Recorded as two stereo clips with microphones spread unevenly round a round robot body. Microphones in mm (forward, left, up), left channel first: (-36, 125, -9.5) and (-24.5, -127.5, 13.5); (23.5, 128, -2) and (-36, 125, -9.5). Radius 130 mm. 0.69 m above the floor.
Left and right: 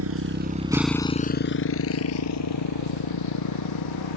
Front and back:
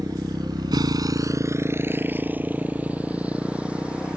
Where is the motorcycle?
120° right; by 4.2 s 110° left.